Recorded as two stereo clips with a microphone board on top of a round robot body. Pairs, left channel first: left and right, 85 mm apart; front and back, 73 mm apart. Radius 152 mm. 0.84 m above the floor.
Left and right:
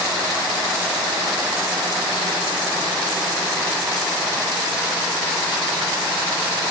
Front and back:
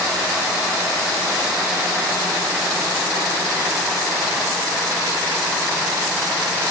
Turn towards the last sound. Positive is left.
No sound to turn to.